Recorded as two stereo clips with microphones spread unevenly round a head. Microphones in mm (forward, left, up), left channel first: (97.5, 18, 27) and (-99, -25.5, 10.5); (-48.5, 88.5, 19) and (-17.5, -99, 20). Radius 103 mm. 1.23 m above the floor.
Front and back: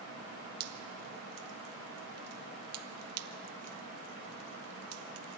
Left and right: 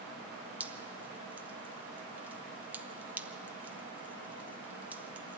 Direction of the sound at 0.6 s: 165° right.